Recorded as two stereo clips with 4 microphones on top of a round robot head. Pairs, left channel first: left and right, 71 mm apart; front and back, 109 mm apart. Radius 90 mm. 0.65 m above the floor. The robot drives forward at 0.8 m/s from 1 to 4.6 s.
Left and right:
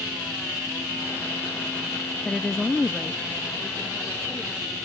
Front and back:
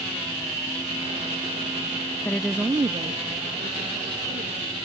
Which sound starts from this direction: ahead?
A woman speaking, at 2.2 s.